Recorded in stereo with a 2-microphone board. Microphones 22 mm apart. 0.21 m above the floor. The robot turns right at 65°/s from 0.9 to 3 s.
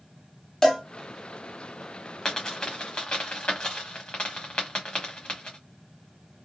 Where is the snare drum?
No snare drum in this recording.